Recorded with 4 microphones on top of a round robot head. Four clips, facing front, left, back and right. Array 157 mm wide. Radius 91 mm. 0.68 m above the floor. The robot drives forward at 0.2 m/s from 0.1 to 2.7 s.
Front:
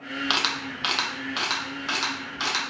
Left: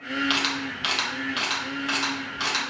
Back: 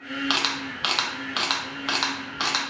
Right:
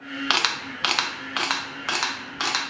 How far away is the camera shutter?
About 0.5 m.